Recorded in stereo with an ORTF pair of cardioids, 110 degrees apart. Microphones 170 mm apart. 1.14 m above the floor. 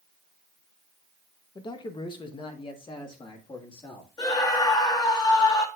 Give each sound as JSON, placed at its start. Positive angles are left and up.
{"t": 1.6, "sound": "a man speaking", "azimuth_deg": 25, "distance_m": 0.8}
{"t": 4.2, "sound": "a scream", "azimuth_deg": 25, "distance_m": 1.7}